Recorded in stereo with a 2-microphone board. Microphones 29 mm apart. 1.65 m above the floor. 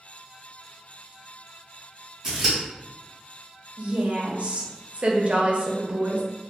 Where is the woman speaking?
45° right (ahead or behind), 0.6 m.